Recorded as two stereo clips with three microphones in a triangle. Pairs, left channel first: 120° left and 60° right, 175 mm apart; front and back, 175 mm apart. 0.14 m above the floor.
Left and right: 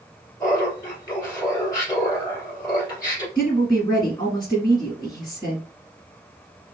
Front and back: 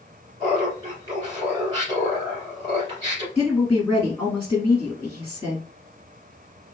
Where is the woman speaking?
75° left, 1.3 m.